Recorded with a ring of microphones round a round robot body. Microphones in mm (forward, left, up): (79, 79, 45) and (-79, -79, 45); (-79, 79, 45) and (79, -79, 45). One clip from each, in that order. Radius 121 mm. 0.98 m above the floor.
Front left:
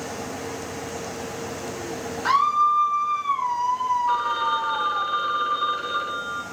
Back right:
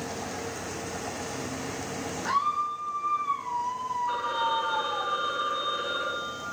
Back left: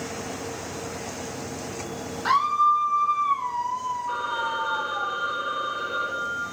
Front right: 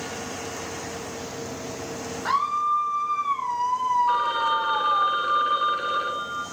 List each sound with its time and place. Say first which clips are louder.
2.2 s a scream: front left 8 dB, back left 3 dB; 60° left, 1.9 m; by 5.1 s 45° right, 1.5 m
4.1 s a phone ringing: front left 5 dB, front right 5 dB; 15° right, 2.5 m